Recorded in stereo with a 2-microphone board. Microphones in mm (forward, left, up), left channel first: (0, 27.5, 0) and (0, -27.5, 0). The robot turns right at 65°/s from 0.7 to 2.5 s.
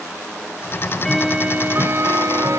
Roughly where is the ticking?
Behind left.